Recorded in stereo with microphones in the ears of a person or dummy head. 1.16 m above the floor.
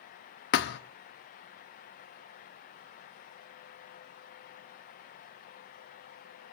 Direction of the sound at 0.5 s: 50° left (ahead or behind).